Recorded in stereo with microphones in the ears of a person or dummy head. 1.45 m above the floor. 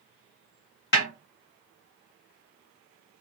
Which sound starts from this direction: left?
A snare drum, at 0.9 s.